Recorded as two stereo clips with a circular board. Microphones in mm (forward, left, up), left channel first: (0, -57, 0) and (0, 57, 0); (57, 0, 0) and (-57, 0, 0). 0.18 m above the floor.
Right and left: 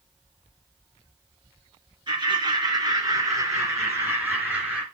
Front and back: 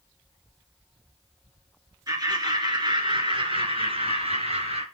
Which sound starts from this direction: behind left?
Laughter, at 2.1 s.